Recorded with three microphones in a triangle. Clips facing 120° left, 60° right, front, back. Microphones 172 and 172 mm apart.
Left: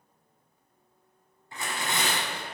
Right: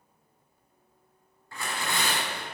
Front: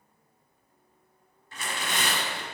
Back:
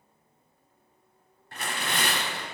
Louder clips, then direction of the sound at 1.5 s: Even, back 1 dB; 175° right.